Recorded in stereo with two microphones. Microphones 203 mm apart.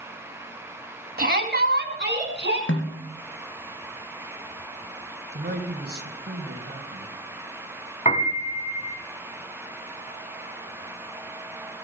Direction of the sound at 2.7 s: 80° left.